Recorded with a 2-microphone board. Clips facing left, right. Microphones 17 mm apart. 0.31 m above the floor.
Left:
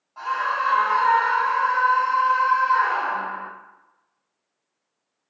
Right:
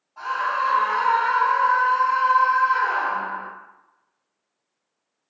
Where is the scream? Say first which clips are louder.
Even; 30° left (ahead or behind), 1.8 m; by 3.5 s 40° left (ahead or behind), 2.5 m.